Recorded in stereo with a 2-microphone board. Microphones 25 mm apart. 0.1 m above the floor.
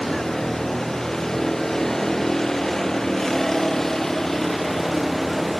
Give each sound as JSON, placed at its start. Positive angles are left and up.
{"t": 0.0, "sound": "a vehicle", "side_deg": 15}